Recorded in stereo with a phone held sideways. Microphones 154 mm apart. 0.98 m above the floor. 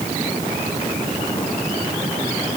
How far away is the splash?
No splash in this recording.